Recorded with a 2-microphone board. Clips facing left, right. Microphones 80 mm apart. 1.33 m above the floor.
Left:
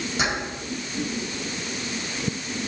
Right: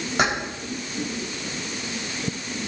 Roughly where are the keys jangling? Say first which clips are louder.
Right 5 dB; right.